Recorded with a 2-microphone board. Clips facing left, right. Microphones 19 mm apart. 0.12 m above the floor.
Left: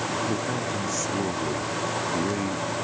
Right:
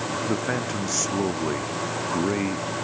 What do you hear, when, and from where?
0.3 s a man speaking: 40° right (ahead or behind); by 2.7 s 30° right (ahead or behind)